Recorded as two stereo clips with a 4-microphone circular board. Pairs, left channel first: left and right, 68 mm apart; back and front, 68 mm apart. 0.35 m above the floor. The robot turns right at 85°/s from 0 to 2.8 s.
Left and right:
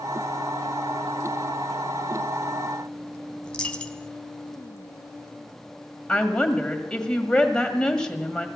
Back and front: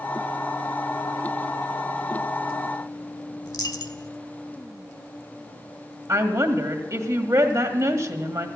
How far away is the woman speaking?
About 1.8 m.